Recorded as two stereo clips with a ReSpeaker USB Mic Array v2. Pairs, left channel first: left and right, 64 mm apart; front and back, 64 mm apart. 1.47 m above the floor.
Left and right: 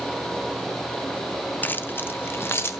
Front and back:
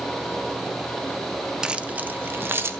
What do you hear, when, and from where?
1.6 s keys jangling: 110° left, 0.6 m; by 2.8 s 135° left, 1.1 m